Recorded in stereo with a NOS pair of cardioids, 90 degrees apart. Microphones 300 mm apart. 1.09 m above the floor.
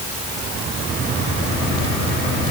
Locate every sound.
Only background noise.